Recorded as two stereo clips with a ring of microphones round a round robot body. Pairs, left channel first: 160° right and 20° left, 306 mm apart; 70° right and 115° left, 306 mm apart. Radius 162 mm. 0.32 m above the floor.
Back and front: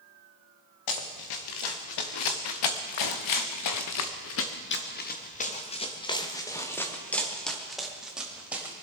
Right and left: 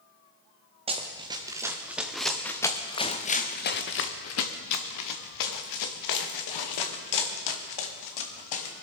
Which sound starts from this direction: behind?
Running footsteps, at 0.9 s.